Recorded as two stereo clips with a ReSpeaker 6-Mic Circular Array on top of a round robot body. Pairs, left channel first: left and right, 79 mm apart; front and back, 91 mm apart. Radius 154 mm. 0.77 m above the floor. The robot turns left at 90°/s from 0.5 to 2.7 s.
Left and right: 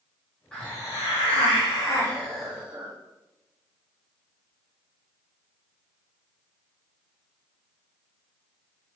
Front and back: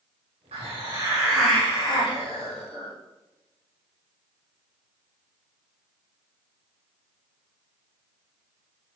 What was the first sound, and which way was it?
A hiss, 170° left.